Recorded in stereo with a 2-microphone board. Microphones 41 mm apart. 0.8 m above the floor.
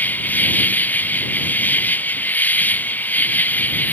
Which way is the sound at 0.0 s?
45° left (ahead or behind).